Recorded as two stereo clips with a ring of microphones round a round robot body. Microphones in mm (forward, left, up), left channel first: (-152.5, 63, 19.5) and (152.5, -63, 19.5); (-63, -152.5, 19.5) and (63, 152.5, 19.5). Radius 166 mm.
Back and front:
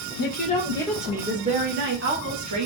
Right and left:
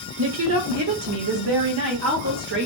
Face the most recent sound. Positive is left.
turn(degrees=10)